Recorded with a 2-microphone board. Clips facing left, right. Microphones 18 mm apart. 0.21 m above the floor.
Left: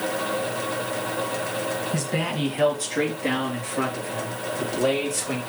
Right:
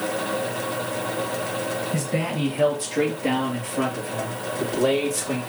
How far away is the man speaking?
About 2 m.